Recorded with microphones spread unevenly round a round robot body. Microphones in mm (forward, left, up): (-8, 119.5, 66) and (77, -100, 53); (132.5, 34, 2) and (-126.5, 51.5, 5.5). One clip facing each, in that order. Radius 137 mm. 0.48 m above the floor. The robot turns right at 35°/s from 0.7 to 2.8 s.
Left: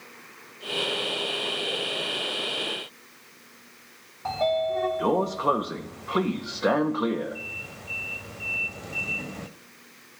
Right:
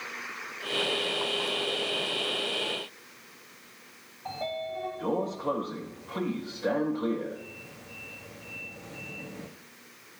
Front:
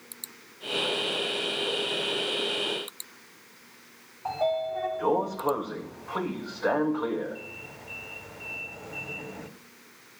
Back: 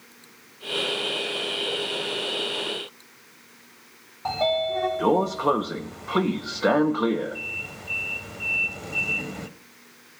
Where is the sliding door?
140° left, 0.6 m.